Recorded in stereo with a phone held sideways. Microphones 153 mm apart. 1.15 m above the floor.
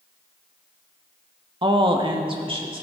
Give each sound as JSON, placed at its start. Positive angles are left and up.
{"t": 1.6, "sound": "a woman speaking", "side_deg": -30, "distance_m": 1.0}